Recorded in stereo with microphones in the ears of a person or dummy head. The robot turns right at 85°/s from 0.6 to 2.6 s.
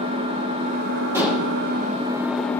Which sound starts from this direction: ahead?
Dishes clattering, at 1.1 s.